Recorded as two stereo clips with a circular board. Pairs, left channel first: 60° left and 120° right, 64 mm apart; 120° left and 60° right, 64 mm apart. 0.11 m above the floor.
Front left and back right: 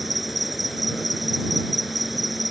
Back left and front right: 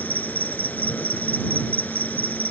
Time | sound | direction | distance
0.0 | an insect | 155° left | ?